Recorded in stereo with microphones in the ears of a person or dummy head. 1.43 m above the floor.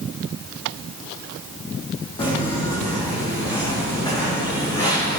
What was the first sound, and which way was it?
Footsteps, 30° left (ahead or behind).